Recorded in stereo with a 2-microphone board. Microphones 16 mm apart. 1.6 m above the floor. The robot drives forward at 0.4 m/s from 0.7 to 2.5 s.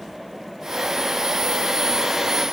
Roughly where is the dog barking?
I don't hear a dog barking.